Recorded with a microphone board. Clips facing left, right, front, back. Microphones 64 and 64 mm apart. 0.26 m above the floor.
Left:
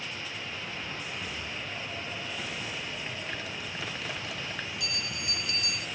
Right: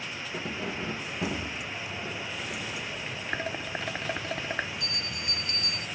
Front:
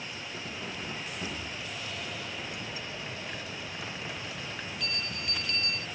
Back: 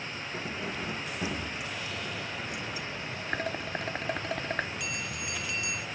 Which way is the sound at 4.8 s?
105° right.